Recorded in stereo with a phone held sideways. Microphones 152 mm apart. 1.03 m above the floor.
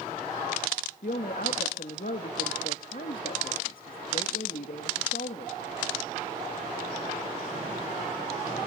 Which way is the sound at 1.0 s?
70° left (ahead or behind).